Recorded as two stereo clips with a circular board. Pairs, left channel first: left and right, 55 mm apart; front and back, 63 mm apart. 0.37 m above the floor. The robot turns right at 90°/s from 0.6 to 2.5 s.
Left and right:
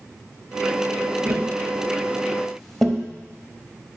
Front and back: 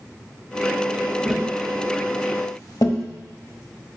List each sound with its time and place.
1.2 s tapping: 105° right, 0.9 m; by 3.0 s 5° left, 0.9 m